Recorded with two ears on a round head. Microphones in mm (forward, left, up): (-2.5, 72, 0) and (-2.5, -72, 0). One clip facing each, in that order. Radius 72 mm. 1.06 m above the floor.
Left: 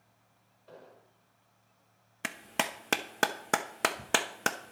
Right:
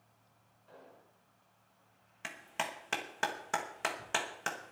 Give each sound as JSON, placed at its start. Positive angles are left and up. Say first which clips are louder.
{"t": 0.7, "sound": "an explosion", "louder": "left 4 dB", "side_deg": 60, "distance_m": 4.5}
{"t": 2.2, "sound": "a clap", "louder": "left 5 dB", "side_deg": 70, "distance_m": 0.9}